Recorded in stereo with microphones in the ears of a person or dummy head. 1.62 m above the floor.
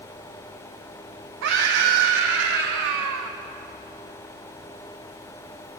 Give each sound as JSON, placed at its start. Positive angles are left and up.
{"t": 1.4, "sound": "a scream", "side_deg": -65, "distance_m": 0.9}